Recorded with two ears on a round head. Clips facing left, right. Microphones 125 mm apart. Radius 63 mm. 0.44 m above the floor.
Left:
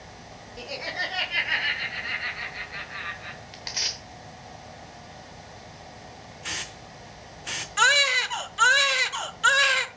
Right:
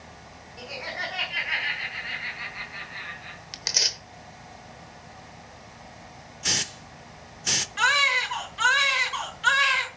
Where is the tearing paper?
50° right (ahead or behind), 1.0 m.